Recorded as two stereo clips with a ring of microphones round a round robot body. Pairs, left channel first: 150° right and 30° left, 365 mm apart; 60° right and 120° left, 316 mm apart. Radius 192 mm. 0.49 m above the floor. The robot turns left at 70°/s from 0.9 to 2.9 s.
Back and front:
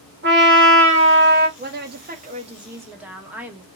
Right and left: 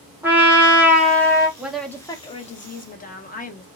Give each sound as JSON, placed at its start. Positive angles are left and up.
{"t": 0.2, "sound": "a trumpet", "azimuth_deg": 40, "distance_m": 1.3}
{"t": 1.6, "sound": "a woman speaking", "azimuth_deg": 40, "distance_m": 0.7}